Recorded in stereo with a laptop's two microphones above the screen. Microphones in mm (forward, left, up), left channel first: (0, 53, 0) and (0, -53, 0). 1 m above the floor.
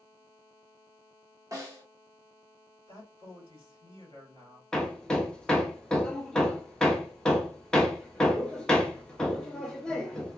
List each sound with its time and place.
1.5 s a snare drum: 35° right (ahead or behind), 1.6 m
2.9 s a man speaking: 65° right (ahead or behind), 2.5 m
4.7 s hammering: 10° left (ahead or behind), 0.6 m